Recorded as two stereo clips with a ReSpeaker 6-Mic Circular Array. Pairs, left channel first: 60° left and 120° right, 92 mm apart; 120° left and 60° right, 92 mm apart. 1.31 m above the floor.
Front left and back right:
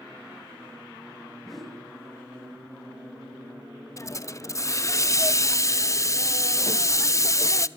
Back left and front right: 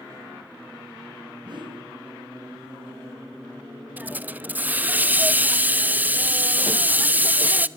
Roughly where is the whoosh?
Ahead right.